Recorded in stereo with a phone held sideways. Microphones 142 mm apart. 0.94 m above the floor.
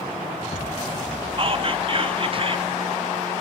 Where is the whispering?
40° right (ahead or behind), 1.2 m.